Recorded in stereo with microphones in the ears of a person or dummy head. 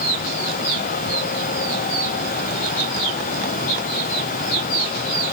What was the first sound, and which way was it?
Only background noise.